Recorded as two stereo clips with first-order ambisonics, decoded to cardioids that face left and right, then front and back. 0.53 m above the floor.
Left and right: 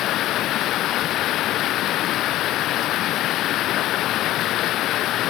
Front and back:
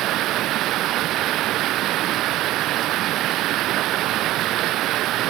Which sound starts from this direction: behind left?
Running water, at 0.0 s.